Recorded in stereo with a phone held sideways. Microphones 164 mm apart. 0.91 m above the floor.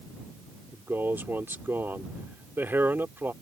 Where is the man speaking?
15° right (ahead or behind).